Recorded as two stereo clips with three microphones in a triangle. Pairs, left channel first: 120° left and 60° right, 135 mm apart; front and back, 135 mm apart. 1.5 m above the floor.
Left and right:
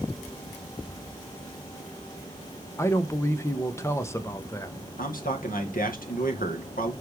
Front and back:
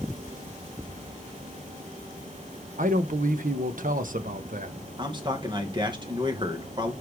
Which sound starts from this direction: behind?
A man speaking, at 2.8 s.